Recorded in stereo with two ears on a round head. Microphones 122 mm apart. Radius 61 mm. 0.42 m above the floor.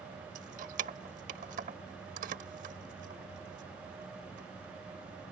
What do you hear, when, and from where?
0.3 s keys jangling: 60° right (ahead or behind)